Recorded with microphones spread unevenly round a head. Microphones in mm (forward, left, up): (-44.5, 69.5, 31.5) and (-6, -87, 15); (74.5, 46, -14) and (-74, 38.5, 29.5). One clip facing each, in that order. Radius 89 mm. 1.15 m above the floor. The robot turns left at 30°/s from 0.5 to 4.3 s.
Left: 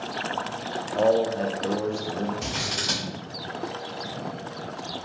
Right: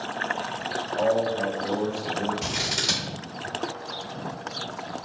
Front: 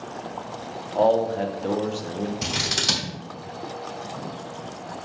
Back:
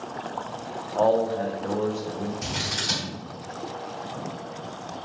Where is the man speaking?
70° left, 0.6 m; by 2.3 s 25° left, 0.6 m.